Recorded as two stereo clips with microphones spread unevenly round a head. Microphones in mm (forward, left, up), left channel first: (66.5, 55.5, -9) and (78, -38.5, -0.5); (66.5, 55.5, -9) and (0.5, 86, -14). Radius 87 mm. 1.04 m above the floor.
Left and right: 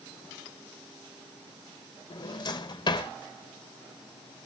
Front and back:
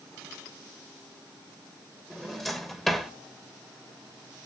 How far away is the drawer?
About 2.5 m.